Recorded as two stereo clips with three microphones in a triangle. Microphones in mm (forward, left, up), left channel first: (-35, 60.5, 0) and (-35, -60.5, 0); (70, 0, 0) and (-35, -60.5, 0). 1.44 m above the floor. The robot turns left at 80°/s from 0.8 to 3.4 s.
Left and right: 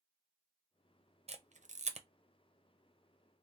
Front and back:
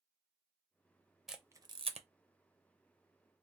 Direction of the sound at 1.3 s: 60° right.